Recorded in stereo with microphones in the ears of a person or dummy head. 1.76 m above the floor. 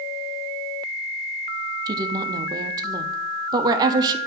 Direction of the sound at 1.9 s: 25° right (ahead or behind).